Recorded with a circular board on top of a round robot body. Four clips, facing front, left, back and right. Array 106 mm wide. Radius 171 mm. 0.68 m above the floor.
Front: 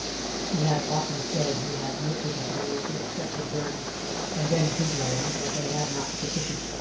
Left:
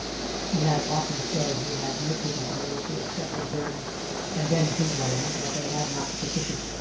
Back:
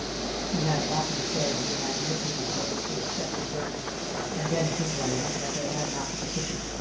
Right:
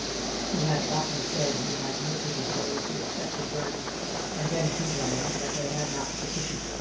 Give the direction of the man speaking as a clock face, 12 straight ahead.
10 o'clock.